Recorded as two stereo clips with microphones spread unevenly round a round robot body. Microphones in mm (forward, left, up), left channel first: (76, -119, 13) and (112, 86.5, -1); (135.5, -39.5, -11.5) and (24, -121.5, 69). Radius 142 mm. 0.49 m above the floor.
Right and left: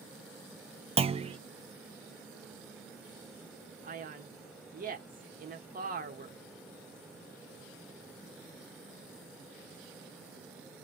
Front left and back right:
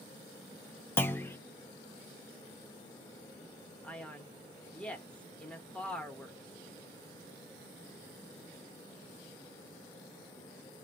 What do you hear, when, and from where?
1.0 s a clunk: 35° left, 0.5 m
3.8 s a man speaking: 75° left, 0.9 m